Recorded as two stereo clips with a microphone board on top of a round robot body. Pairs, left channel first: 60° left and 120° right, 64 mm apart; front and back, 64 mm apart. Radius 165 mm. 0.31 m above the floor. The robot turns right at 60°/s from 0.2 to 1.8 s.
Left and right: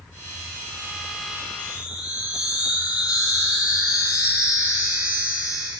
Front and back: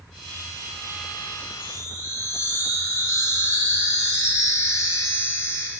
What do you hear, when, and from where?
1.6 s a chime: 60° right, 3.5 m; by 5.7 s 50° right, 3.5 m